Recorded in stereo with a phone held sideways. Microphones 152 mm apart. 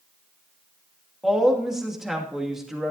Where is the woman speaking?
5° right (ahead or behind), 2.5 m.